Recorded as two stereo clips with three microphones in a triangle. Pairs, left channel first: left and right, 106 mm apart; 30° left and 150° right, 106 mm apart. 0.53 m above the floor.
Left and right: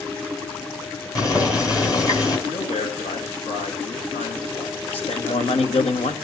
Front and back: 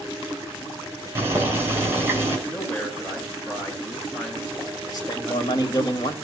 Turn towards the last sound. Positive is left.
turn(degrees=75)